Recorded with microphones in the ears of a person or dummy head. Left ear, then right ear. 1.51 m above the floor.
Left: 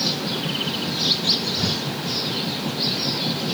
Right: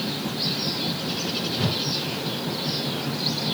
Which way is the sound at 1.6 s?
45° right (ahead or behind).